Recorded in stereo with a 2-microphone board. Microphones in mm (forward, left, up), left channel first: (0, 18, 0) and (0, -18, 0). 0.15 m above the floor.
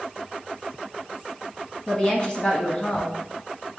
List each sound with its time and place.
1.9 s a woman speaking: 25° left (ahead or behind), 1.4 m